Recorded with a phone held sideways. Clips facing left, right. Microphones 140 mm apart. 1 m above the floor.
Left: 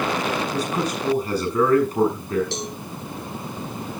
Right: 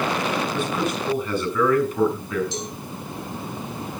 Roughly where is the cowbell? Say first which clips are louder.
Left 1 dB; left.